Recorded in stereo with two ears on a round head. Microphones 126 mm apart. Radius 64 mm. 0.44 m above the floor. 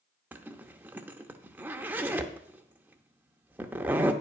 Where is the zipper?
15° right (ahead or behind), 0.7 m.